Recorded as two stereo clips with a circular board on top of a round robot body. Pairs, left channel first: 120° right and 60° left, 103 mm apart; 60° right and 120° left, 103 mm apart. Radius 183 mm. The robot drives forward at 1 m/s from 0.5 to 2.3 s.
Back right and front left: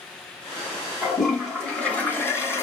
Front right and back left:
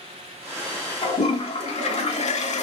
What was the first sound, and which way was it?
A toilet flushing, 30° right.